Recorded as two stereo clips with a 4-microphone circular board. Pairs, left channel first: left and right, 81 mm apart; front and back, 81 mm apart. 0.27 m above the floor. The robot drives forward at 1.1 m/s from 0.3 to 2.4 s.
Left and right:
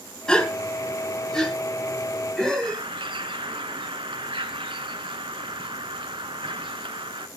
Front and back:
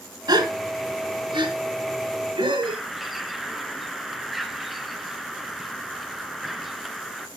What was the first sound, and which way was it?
A gasp, 170° left.